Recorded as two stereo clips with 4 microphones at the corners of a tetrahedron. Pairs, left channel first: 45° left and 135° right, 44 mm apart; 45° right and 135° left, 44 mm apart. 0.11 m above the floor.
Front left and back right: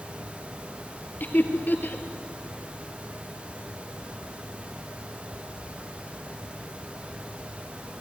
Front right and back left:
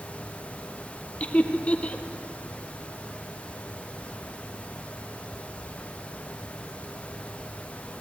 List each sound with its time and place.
1.2 s laughter: 10° left, 2.5 m